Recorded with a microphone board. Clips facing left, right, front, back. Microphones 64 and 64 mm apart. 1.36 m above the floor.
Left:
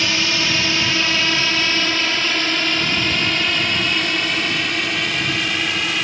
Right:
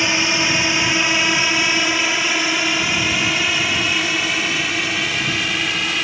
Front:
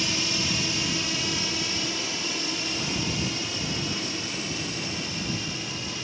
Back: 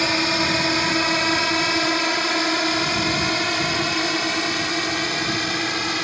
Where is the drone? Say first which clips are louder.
Right 2 dB, back 9 dB; 160° right; by 6.0 s straight behind.